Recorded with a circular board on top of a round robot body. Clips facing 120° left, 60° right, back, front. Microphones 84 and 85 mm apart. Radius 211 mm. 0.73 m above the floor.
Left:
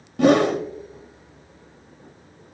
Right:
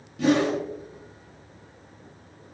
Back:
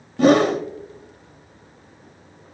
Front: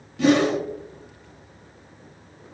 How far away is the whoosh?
About 1.1 m.